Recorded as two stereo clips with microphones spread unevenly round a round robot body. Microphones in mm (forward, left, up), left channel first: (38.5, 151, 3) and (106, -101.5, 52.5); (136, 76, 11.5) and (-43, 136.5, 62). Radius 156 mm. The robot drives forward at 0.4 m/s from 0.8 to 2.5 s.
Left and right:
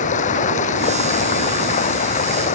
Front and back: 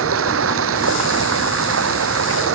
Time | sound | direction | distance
0.0 | running water | 175° left | ?